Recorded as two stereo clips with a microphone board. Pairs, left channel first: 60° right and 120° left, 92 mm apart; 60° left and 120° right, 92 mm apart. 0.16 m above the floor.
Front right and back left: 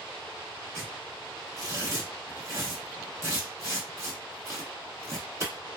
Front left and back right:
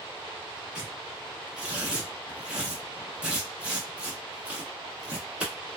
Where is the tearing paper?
165° left, 1.3 m.